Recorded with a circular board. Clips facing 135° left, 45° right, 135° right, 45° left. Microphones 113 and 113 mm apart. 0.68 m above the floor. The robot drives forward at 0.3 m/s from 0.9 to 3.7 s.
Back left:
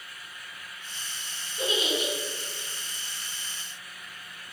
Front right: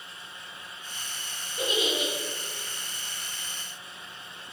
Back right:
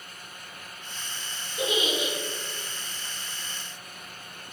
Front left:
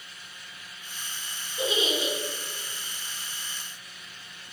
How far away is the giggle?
About 1.4 m.